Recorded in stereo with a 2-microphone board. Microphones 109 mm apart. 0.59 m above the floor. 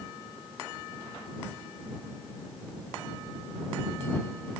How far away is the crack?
No crack in this recording.